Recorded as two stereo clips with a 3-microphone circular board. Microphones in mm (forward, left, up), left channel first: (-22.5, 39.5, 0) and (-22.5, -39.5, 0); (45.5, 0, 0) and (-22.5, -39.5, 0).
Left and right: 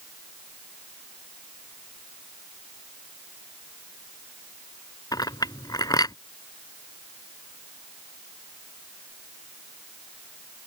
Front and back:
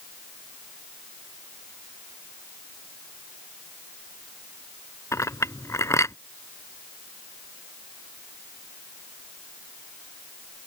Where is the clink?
75° left.